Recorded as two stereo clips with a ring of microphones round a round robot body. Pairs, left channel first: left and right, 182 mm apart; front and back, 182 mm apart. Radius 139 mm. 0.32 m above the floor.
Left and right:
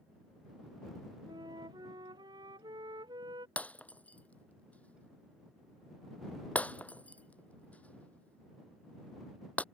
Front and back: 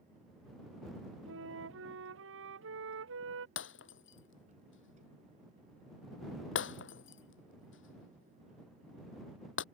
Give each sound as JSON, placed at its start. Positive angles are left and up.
{"t": 1.2, "sound": "a flute", "azimuth_deg": -165}
{"t": 3.6, "sound": "breaking glass", "azimuth_deg": 5}